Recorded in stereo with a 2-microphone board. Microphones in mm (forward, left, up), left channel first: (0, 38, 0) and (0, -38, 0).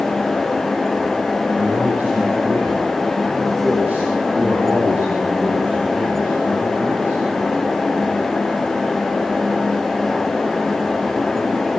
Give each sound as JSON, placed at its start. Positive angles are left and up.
{"t": 1.6, "sound": "a man speaking", "side_deg": -25, "distance_m": 6.5}